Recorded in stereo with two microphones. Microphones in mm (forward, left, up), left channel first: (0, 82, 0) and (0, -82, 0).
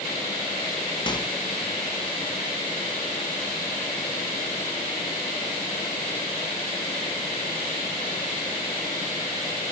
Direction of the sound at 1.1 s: 30° left (ahead or behind).